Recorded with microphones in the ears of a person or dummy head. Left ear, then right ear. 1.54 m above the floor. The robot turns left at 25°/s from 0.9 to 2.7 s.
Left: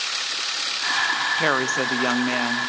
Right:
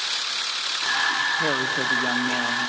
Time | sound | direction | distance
1.4 | a woman speaking | 130° left | 0.8 m